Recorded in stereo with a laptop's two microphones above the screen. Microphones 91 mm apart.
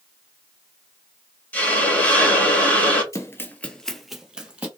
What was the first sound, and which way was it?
A hiss, 20° left (ahead or behind).